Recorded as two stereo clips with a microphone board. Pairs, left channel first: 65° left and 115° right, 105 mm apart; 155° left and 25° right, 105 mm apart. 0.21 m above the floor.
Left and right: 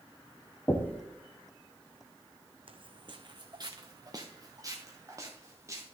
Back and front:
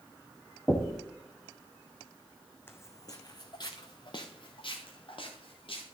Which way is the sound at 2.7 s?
135° right.